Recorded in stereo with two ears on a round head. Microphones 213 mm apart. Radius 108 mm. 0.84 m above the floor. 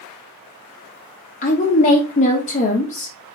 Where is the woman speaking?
30° left (ahead or behind), 0.6 m.